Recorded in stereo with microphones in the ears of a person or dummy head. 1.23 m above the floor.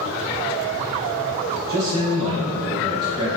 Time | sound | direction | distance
1.7 | a man speaking | 55° right (ahead or behind) | 1.4 m